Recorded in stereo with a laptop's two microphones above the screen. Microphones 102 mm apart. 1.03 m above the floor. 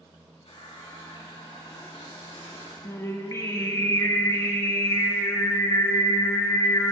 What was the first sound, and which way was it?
A running tap, 85° left.